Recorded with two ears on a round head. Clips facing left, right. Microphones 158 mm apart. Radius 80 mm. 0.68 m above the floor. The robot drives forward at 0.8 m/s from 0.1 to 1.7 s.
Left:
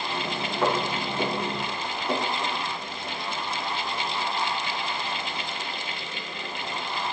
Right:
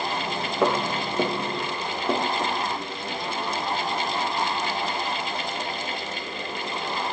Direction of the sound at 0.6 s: 55° right (ahead or behind).